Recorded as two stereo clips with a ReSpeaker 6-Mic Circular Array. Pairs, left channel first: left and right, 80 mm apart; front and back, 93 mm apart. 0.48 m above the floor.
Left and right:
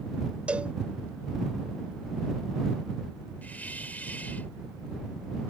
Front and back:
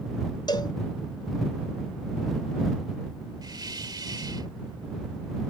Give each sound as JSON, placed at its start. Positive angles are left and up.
{"t": 0.5, "sound": "a cowbell", "azimuth_deg": -20}
{"t": 3.4, "sound": "a hiss", "azimuth_deg": 155}